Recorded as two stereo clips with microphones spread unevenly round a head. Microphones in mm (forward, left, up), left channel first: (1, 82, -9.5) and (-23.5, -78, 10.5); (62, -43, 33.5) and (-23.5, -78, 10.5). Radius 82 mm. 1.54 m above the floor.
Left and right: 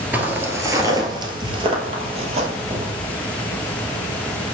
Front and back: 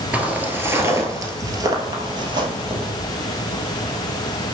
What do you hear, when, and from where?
0.1 s footsteps: 70° right, 1.5 m; by 2.9 s 125° right, 2.5 m